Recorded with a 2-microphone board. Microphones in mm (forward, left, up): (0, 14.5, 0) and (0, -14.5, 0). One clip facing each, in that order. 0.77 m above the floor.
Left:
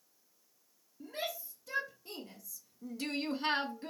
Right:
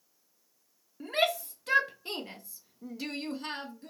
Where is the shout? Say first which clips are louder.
Right 12 dB; 75° right (ahead or behind), 1.4 m; by 3.9 s 35° left (ahead or behind), 0.8 m.